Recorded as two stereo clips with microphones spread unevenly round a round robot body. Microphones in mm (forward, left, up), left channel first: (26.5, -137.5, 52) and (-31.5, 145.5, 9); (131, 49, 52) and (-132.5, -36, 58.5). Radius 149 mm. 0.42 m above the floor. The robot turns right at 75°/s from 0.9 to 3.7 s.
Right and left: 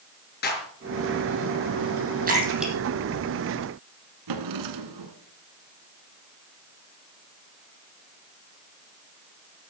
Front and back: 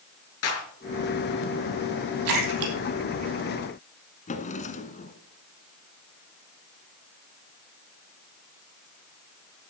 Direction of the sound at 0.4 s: 20° right.